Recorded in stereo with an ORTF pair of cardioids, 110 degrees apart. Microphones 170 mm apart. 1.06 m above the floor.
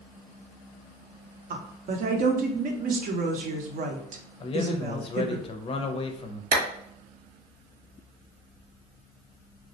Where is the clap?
55° right, 1.1 m.